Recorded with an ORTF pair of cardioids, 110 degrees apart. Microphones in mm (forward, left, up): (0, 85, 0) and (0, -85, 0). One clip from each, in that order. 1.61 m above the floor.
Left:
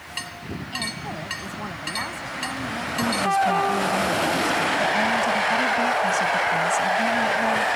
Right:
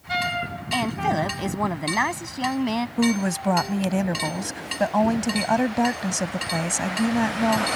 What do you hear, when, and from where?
0.7 s a woman speaking: 60° right
3.0 s a woman speaking: 45° right